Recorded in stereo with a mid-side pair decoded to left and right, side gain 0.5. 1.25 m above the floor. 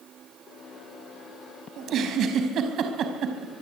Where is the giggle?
60° right, 5 m.